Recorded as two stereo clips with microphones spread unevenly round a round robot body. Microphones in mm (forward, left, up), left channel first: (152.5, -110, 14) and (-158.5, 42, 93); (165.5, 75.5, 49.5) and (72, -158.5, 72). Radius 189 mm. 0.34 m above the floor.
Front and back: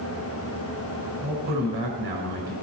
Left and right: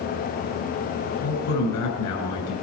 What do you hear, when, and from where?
1.2 s a man speaking: 90° left, 5.5 m